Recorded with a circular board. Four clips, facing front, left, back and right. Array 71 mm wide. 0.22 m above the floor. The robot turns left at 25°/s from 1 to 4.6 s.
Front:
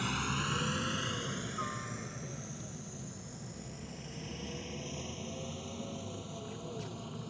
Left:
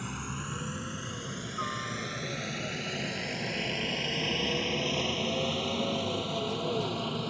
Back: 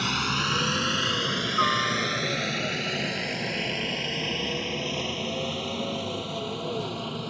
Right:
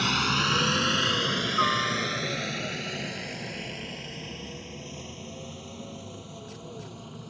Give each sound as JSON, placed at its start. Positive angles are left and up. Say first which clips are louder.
{"t": 0.0, "sound": "a helicopter", "louder": "right 12 dB, back 8 dB", "azimuth_deg": -125}